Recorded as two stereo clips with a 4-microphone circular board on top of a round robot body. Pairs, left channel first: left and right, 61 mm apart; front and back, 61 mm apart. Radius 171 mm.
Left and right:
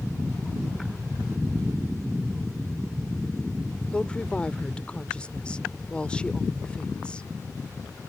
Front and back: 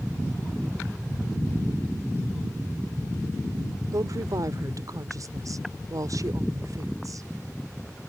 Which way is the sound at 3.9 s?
165° left.